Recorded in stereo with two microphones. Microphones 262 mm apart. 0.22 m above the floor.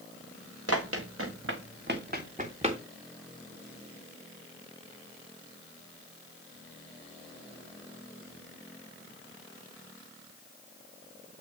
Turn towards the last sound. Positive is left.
turn(degrees=-20)  # may be behind; listen again after turning